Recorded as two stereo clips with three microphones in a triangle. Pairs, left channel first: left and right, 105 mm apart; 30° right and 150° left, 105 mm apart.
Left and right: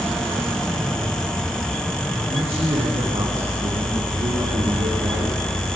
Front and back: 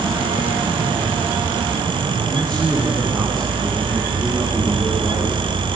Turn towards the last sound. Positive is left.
turn(degrees=-105)